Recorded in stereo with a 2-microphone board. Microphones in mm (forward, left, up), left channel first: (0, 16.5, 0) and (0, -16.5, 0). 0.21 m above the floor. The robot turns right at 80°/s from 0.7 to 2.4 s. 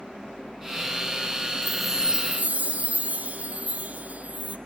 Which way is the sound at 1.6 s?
170° left.